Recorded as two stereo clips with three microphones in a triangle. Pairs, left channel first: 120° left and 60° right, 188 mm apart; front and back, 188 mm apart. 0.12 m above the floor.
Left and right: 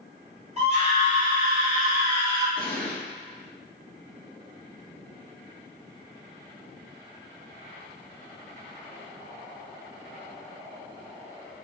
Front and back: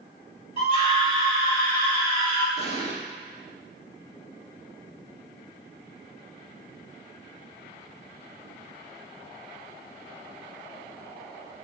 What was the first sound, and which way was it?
A scream, 40° right.